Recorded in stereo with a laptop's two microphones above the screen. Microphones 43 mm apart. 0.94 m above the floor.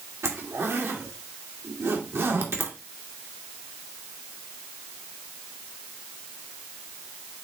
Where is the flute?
I don't hear a flute.